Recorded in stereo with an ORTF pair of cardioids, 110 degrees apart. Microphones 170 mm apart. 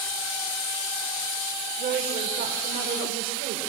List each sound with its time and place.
1.8 s a woman speaking: 60° right, 5 m; by 3.7 s 70° right, 5.5 m